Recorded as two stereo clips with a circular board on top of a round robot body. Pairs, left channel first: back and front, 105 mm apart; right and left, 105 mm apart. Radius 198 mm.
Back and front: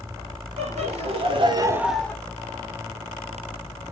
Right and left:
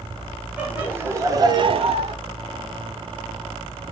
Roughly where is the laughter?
Ahead.